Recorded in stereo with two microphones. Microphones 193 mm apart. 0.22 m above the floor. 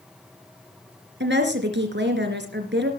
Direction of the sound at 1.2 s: 70° right (ahead or behind).